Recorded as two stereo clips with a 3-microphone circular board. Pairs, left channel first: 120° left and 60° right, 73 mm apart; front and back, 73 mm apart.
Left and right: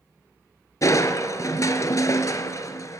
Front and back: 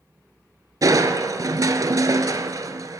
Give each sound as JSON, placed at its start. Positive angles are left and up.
{"t": 0.8, "sound": "crushing", "azimuth_deg": 155, "distance_m": 0.7}